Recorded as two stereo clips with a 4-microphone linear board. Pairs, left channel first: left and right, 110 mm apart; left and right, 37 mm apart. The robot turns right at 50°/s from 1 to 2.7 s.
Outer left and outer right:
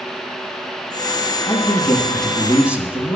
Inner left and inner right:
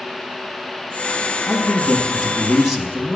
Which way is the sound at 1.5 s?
135° left.